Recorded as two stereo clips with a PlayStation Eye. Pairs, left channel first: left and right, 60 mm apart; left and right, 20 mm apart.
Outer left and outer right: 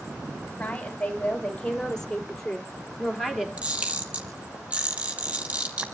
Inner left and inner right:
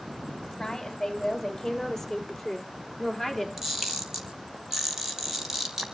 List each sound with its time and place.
0.6 s a woman speaking: 20° left (ahead or behind), 4.5 m; by 3.5 s 5° right (ahead or behind), 3.5 m
3.6 s a camera shutter: 20° right (ahead or behind), 4 m